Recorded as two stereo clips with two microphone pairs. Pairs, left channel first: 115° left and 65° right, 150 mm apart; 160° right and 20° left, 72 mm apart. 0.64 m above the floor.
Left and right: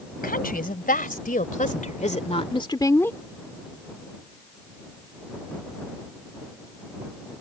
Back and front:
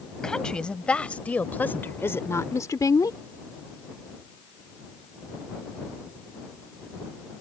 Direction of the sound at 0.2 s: 120° left.